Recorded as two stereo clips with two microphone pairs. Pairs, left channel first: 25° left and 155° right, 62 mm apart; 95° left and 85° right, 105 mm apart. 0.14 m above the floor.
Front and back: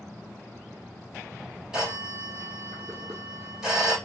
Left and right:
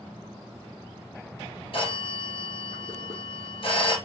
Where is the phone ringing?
120° left, 3.5 m.